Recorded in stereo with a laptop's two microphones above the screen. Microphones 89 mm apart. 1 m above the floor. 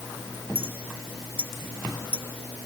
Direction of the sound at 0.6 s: 85° right.